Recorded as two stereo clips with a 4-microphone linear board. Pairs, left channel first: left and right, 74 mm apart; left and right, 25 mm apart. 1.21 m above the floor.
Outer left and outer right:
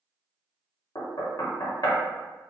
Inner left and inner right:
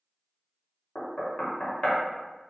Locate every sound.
0.9 s knocking: 50° left (ahead or behind), 0.6 m